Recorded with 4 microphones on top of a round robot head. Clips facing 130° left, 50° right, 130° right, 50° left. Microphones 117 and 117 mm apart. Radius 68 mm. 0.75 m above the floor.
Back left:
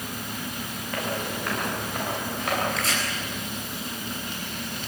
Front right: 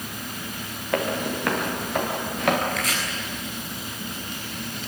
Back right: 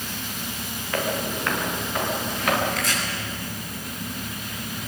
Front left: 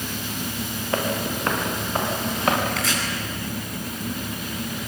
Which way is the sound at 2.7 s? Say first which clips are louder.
Front right 1 dB, front left 1 dB; 70° left.